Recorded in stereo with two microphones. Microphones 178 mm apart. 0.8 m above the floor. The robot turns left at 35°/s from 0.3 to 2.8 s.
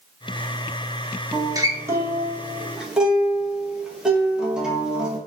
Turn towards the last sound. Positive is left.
turn(degrees=-5)  # may be behind; listen again after turning